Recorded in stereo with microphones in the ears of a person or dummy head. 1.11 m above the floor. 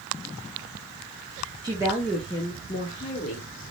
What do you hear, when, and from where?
1.6 s a woman speaking: 15° right (ahead or behind), 0.7 m; by 3.5 s 45° left (ahead or behind), 1.0 m